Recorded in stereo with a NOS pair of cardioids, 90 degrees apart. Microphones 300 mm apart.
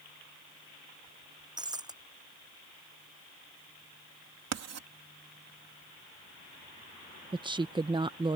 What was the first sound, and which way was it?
Breaking glass, 15° right.